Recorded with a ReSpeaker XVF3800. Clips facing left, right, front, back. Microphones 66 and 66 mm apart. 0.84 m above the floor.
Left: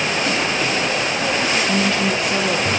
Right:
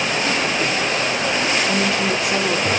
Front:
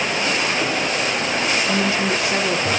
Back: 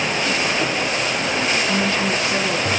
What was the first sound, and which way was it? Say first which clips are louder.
A woman speaking: left 1 dB, even; 20° right.